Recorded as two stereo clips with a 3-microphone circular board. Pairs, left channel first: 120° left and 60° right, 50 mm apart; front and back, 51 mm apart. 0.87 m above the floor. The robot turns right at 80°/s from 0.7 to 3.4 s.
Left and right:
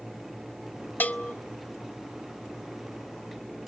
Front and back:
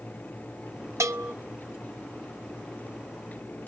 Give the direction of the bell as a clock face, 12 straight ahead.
6 o'clock.